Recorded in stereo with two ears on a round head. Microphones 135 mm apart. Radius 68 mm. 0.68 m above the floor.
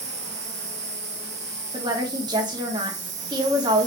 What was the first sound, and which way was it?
An insect, 50° right (ahead or behind).